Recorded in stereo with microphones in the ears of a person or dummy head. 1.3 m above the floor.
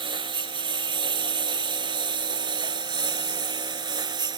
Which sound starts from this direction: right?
A lawn mower, at 0.0 s.